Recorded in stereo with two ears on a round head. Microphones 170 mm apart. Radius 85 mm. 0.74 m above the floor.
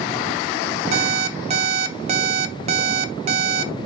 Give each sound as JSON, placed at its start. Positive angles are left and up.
{"t": 0.9, "sound": "an alarm clock", "side_deg": -35, "distance_m": 0.7}